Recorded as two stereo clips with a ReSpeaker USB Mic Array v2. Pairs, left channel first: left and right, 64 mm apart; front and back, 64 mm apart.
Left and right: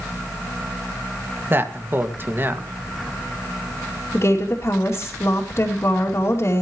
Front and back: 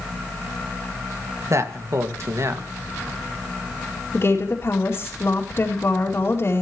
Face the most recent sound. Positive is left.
turn(degrees=45)